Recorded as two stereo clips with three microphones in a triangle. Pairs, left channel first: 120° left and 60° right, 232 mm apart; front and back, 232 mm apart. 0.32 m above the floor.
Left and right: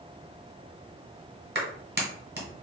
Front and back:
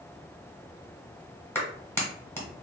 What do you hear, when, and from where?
1.6 s a clap: 80° right, 1.2 m